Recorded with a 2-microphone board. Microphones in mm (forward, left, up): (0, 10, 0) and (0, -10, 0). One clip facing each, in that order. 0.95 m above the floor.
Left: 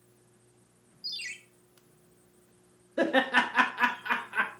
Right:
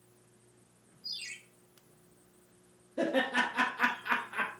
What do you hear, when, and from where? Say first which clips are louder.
1.0 s a ringtone: left 4 dB; 45° left (ahead or behind), 1.1 m
3.0 s laughter: left 5 dB; 70° left (ahead or behind), 0.9 m